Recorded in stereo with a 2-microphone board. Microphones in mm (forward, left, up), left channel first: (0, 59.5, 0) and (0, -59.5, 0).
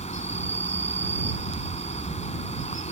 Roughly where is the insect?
Left.